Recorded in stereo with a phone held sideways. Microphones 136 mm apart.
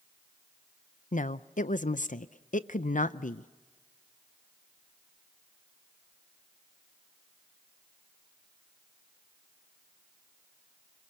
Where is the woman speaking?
75° left (ahead or behind), 0.5 m.